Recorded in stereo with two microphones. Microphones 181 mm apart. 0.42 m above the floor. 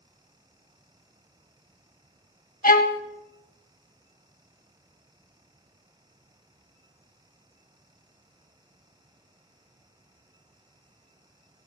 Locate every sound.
2.6 s a violin: 50° left (ahead or behind), 0.8 m